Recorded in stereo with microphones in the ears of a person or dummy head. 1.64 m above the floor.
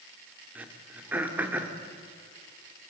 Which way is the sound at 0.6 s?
5° right (ahead or behind).